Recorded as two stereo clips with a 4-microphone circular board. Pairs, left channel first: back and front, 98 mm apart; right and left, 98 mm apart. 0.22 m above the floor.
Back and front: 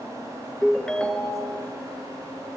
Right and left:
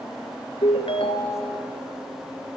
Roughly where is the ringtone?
Right.